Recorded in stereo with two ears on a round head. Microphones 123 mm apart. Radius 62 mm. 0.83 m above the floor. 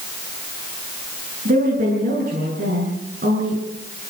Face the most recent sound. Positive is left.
turn(degrees=-75)  # may be behind; listen again after turning